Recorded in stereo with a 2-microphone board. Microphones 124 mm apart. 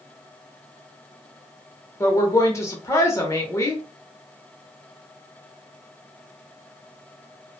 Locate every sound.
2.0 s a woman speaking: 20° left (ahead or behind), 0.8 m